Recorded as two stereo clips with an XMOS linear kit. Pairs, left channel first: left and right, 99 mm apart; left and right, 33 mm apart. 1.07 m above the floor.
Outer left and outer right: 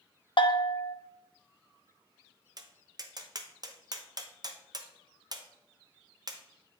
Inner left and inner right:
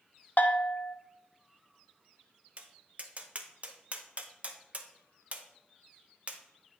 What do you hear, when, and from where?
0.4 s a bell: 55° left (ahead or behind), 0.5 m
2.6 s tapping: 40° right (ahead or behind), 0.6 m